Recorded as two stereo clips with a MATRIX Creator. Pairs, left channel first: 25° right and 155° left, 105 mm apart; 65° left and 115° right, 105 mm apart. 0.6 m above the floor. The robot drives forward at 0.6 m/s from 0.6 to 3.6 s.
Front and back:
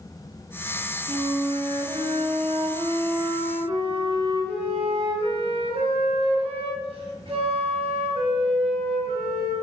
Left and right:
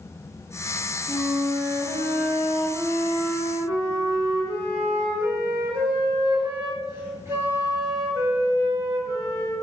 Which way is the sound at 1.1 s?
175° right.